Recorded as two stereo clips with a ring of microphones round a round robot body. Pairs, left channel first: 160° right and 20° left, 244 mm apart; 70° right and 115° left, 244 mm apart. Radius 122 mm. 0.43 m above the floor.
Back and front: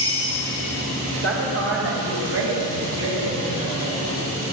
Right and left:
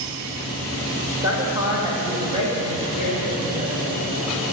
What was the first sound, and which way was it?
A woman speaking, 40° left.